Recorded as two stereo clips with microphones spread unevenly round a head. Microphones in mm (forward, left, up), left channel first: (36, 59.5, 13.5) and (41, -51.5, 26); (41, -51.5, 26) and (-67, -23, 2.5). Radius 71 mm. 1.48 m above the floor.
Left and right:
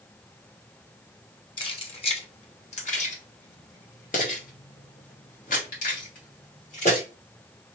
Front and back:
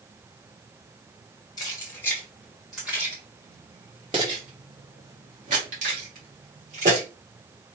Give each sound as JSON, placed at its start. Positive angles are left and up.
{"t": 1.6, "sound": "keys jangling", "azimuth_deg": 45, "distance_m": 1.5}